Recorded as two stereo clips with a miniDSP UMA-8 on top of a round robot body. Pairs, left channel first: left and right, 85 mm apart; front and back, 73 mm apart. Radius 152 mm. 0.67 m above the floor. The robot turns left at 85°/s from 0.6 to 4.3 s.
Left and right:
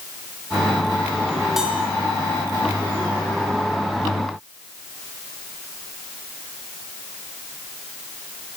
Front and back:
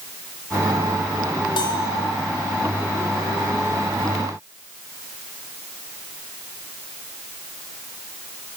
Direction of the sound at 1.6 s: 5° right.